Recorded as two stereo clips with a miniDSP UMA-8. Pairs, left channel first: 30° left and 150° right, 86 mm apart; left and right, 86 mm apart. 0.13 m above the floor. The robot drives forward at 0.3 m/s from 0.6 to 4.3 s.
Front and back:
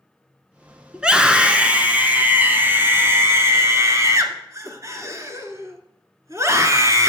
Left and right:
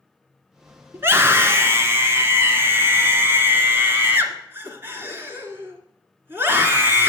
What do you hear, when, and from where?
0.9 s a scream: 80° right, 1.7 m; by 7.1 s 135° right, 1.9 m